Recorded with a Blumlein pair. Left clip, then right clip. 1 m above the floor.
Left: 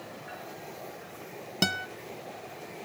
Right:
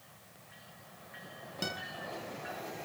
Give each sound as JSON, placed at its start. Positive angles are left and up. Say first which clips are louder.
{"t": 1.6, "sound": "a guitar", "louder": "left 9 dB", "azimuth_deg": 60, "distance_m": 1.4}